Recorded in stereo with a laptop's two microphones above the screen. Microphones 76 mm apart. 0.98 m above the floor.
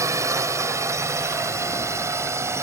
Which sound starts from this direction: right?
A drone, at 0.0 s.